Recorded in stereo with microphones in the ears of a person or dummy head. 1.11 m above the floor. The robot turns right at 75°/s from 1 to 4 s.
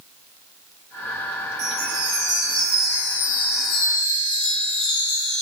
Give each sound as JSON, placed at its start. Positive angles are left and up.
{"t": 1.6, "sound": "a chime", "azimuth_deg": -110, "distance_m": 1.0}